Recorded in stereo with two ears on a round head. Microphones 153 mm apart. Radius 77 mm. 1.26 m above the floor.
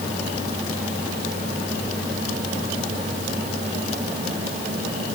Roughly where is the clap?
No clap in this recording.